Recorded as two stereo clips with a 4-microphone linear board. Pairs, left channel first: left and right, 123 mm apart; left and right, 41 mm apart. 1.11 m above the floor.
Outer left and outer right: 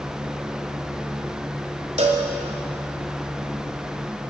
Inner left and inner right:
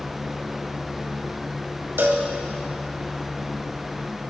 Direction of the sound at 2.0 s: 70° right (ahead or behind).